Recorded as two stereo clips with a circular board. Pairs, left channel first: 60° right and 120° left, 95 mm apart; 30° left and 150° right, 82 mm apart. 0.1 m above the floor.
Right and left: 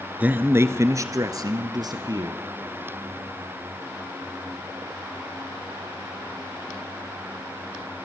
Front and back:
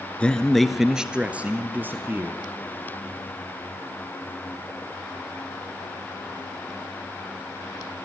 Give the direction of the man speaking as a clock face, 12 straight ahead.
9 o'clock.